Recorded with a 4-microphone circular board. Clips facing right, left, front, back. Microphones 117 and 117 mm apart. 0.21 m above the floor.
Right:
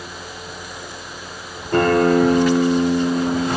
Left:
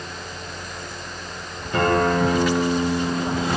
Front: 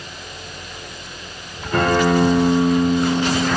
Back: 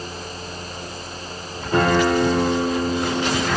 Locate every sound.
1.7 s a guitar: 120° right, 5 m